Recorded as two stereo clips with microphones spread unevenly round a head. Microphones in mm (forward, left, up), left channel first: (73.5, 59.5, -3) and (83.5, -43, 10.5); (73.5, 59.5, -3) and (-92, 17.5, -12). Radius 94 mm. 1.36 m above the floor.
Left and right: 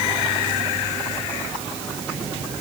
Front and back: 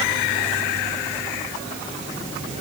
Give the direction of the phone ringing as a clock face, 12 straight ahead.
No phone ringing in this recording.